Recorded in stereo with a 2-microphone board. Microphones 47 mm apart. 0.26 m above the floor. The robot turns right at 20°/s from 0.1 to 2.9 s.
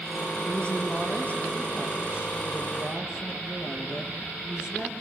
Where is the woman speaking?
20° left, 6 m; by 4.9 s 65° left, 6 m.